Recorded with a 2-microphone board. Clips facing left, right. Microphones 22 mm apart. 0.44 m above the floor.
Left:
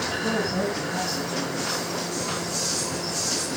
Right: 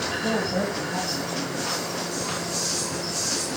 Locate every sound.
0.2 s a woman speaking: 45° right (ahead or behind), 2.5 m